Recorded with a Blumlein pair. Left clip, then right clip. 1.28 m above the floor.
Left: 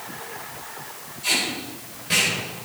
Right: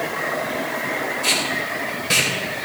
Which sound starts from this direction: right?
Tape being pulled, at 1.2 s.